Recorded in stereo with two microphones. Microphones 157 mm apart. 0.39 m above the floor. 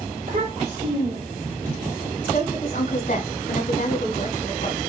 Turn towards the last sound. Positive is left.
turn(degrees=55)  # may be behind; listen again after turning